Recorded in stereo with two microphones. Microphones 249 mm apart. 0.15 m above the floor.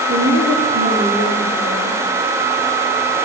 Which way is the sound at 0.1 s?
75° right (ahead or behind).